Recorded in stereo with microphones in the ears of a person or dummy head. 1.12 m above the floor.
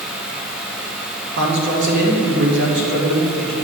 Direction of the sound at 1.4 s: 60° right (ahead or behind).